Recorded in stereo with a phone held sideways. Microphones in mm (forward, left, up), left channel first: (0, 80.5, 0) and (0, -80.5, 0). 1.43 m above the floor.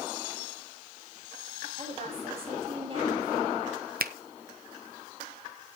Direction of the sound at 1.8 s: 45° right (ahead or behind).